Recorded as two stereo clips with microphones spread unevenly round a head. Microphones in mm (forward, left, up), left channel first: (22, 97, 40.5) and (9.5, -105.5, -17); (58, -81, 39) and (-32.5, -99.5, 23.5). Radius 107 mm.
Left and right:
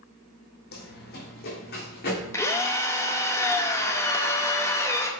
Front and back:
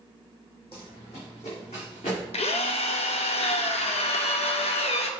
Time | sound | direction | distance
0.7 | running footsteps | 60° left | 2.5 m
2.3 | a drill | 5° left | 0.9 m